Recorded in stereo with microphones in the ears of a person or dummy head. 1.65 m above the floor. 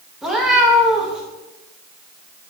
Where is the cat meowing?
5° right (ahead or behind), 1.1 m.